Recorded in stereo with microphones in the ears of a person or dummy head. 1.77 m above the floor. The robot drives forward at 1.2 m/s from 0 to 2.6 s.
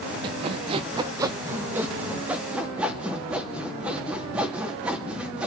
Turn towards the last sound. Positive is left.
turn(degrees=-10)  # may be behind; listen again after turning